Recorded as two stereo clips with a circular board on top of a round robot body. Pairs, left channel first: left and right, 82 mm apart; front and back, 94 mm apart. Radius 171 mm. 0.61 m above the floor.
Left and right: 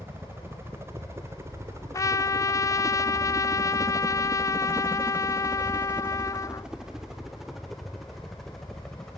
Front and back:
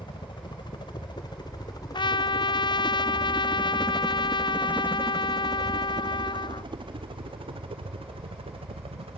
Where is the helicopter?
30° right; by 9.2 s 175° left.